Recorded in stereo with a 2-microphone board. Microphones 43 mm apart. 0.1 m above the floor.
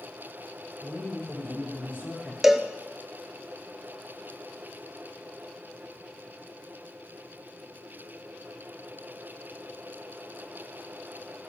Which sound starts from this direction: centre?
A cowbell, at 2.4 s.